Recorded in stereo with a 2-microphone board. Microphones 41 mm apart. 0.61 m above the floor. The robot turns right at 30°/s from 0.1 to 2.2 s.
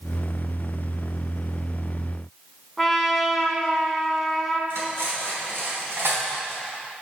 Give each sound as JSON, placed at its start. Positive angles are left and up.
{"t": 2.8, "sound": "a trumpet", "side_deg": 0, "distance_m": 1.0}
{"t": 4.7, "sound": "cutlery clinking", "side_deg": -80, "distance_m": 3.0}